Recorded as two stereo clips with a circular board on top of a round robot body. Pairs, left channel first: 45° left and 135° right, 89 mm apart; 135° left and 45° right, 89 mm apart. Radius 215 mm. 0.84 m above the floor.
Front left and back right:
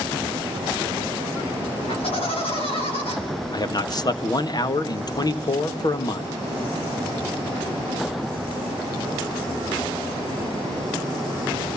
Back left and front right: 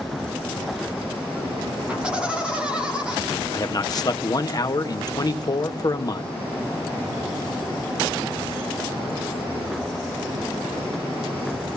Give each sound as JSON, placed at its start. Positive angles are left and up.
{"t": 1.9, "sound": "laughter", "azimuth_deg": 35, "distance_m": 5.0}
{"t": 3.5, "sound": "a man speaking", "azimuth_deg": 90, "distance_m": 1.7}